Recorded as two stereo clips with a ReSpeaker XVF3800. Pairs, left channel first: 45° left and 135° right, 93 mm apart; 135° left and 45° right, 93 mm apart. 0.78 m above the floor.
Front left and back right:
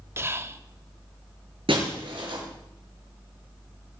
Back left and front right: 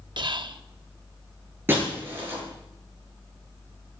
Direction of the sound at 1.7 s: 110° right.